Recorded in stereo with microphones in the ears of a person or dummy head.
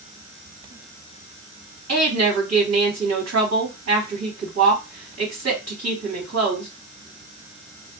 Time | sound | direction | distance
1.9 | a woman speaking | 65° right (ahead or behind) | 2.5 m